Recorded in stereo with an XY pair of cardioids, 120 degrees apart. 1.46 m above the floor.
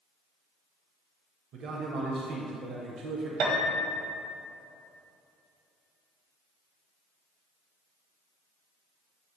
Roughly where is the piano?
Ahead right.